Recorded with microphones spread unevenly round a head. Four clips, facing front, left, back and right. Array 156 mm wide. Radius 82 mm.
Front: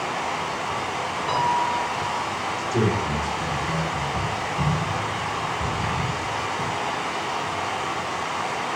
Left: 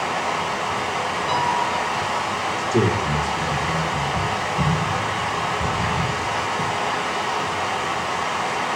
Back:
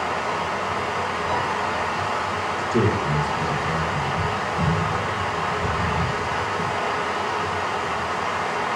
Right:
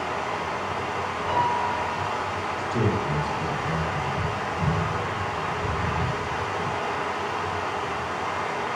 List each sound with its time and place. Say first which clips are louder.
0.0 s running water: left 5 dB, back 2 dB; 105° left, 3 m
1.3 s a piano: left 1 dB, front 6 dB; 45° left, 4 m
2.6 s a man speaking: left 5 dB, back 2 dB; 110° left, 2.5 m